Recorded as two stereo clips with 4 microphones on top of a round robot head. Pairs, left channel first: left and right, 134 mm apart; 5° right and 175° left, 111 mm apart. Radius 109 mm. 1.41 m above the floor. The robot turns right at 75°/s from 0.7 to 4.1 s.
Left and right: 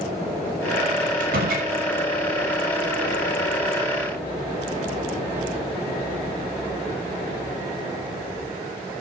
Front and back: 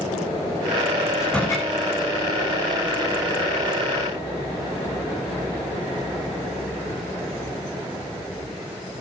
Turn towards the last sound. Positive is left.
turn(degrees=115)